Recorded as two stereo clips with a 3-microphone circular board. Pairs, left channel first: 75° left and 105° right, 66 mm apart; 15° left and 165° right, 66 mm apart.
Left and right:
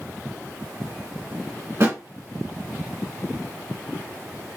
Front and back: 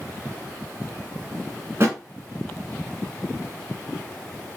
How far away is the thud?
About 1.6 m.